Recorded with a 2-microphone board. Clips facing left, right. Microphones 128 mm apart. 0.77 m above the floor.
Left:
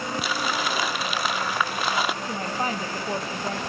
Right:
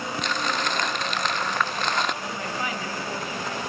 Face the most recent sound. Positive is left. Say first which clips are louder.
# left 3 dB
turn(degrees=35)  # may be behind; listen again after turning